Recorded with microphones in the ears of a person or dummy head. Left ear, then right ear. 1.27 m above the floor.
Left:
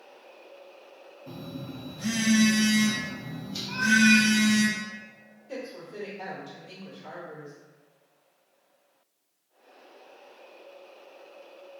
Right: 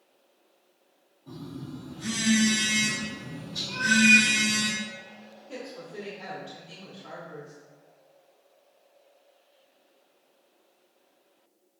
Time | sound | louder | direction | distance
1.3 | a phone buzzing | left 1 dB | 80° left | 0.8 m
3.7 | a cat meowing | right 2 dB | 50° left (ahead or behind) | 1.2 m
5.5 | a woman speaking | left 2 dB | 50° left (ahead or behind) | 1.4 m